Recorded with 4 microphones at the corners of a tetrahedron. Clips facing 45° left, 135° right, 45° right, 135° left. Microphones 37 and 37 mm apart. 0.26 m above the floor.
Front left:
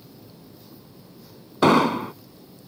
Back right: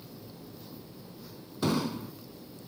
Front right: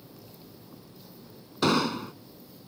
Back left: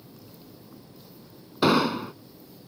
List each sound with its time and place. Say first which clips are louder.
1.6 s an explosion: front left 13 dB, back left 3 dB; 60° left